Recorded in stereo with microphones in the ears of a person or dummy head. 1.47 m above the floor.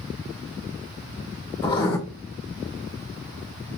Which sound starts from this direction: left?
Writing, at 1.6 s.